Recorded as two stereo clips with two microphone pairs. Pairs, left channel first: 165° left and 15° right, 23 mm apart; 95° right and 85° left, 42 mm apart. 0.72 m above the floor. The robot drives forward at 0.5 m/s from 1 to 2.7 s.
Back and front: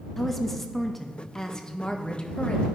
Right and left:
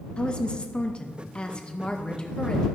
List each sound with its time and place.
0.2 s a woman speaking: 125° right, 0.7 m; by 2.7 s 165° right, 1.2 m